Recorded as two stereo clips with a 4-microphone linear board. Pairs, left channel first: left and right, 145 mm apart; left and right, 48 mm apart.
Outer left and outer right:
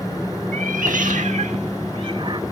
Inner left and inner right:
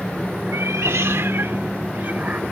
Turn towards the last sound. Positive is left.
turn(degrees=-35)  # may be behind; listen again after turning